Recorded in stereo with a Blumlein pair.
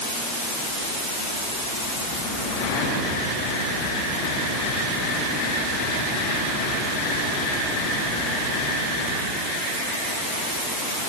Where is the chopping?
No chopping in this recording.